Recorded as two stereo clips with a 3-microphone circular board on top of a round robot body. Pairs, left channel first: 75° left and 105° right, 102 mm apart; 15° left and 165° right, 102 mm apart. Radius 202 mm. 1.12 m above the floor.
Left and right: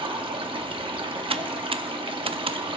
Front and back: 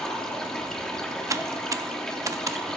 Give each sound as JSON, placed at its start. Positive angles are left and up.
{"t": 0.0, "sound": "running water", "azimuth_deg": -70, "distance_m": 0.9}
{"t": 1.3, "sound": "typing on a keyboard", "azimuth_deg": -110, "distance_m": 0.6}